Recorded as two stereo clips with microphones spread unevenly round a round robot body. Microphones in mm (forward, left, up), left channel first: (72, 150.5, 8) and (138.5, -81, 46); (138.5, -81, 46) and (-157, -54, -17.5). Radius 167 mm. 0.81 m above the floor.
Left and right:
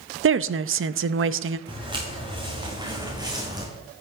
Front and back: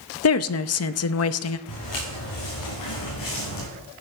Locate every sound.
0.2 s a woman speaking: 45° right, 0.7 m
1.7 s footsteps: 5° right, 5.5 m; by 3.7 s straight ahead, 4 m